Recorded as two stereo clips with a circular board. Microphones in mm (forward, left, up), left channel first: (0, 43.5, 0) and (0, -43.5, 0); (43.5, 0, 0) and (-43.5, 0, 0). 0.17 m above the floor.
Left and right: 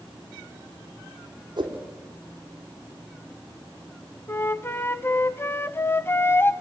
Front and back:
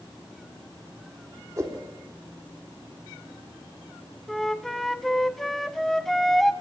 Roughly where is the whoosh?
Behind right.